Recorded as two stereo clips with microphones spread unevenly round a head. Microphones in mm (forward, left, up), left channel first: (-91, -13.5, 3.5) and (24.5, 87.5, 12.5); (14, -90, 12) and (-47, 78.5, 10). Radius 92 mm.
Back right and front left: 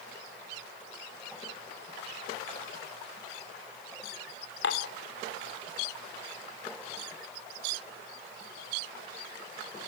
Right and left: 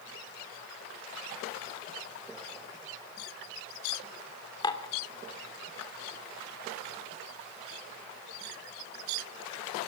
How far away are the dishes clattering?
About 2.0 m.